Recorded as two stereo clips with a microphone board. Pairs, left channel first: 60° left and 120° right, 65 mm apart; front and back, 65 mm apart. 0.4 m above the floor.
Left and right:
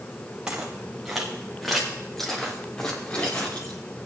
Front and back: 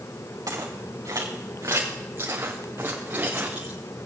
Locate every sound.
0.5 s footsteps: 165° left, 3 m; by 3.8 s 115° left, 2.5 m